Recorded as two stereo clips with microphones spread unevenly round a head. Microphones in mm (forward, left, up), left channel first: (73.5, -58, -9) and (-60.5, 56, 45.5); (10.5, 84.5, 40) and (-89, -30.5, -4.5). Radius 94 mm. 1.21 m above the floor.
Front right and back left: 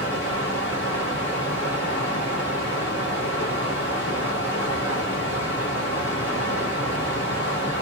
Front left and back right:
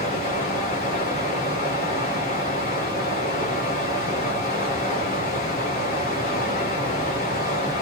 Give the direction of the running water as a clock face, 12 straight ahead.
10 o'clock.